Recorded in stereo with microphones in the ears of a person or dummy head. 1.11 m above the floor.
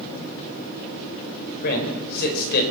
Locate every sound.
1.6 s a man speaking: 55° left (ahead or behind), 4.5 m